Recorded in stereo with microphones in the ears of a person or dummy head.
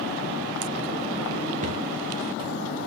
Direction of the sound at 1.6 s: 35° right (ahead or behind).